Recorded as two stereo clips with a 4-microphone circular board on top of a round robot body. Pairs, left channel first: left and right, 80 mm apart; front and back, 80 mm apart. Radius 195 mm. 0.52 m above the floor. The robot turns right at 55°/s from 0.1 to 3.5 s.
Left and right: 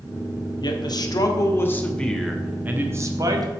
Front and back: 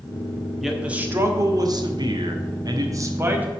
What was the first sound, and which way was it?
A man speaking, 90° left.